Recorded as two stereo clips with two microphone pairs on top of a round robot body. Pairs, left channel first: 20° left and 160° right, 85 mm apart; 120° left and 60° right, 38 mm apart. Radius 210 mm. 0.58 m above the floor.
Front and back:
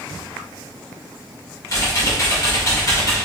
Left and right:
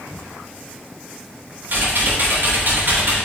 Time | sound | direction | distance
1.7 | typing on a keyboard | 35° right | 3 m